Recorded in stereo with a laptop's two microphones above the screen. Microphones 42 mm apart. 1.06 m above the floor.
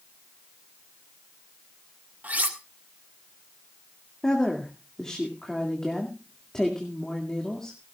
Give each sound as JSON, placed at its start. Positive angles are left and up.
{"t": 2.2, "sound": "cutlery clinking", "side_deg": -45, "distance_m": 1.7}
{"t": 4.2, "sound": "a woman speaking", "side_deg": 15, "distance_m": 2.0}